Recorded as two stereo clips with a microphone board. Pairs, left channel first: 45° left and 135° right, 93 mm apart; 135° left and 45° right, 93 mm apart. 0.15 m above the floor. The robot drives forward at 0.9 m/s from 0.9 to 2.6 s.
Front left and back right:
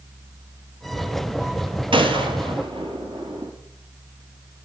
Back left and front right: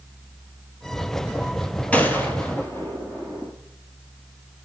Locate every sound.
1.9 s a gunshot: 150° right, 1.5 m; by 3.5 s 160° right, 2 m